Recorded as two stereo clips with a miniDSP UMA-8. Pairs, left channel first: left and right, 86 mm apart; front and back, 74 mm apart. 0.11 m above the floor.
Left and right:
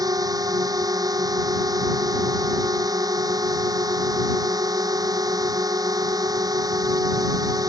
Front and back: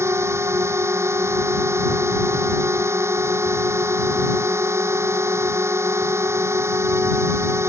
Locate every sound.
0.0 s a drone: 130° right